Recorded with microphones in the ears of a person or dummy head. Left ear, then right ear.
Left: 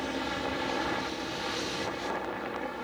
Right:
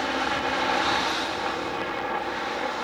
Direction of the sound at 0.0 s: 35° right (ahead or behind).